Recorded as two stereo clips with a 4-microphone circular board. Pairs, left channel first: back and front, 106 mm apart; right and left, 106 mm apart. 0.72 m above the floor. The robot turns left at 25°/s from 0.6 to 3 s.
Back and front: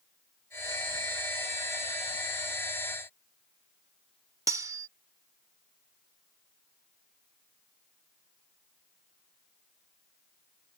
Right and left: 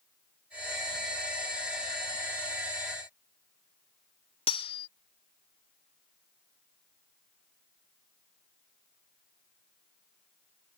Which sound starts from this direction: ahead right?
Cutlery clinking, at 4.5 s.